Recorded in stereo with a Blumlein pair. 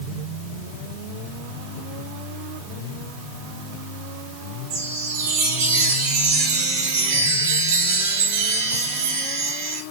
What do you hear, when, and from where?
4.7 s a chime: 65° right, 3 m